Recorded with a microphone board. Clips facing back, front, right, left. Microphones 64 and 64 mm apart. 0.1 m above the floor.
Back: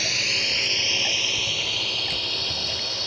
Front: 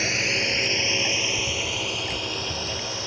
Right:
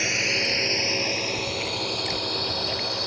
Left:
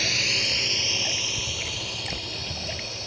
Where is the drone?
40° right; by 3.1 s 70° right.